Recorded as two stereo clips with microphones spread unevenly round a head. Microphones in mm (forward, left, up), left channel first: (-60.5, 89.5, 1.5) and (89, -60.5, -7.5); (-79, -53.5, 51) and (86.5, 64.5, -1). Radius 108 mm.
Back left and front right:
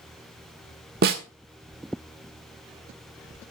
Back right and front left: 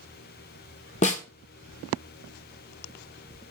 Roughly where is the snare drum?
Right.